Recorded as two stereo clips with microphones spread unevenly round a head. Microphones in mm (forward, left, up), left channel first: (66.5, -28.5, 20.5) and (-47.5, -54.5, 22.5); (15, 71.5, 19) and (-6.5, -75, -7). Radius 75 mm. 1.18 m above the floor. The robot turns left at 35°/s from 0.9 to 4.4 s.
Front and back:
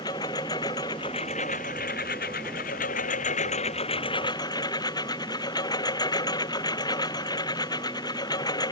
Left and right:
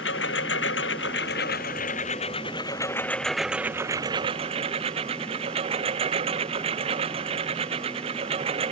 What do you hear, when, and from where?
0.0 s a lawn mower: 80° left; by 8.7 s 45° right